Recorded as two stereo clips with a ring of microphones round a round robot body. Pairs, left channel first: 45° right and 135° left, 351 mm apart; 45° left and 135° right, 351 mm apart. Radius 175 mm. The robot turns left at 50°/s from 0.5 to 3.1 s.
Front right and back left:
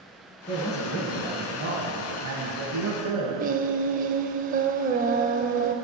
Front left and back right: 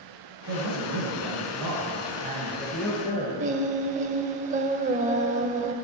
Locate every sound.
0.5 s a man speaking: 115° right, 2.5 m; by 3.3 s 115° left, 2.5 m
3.4 s singing: 175° left, 0.6 m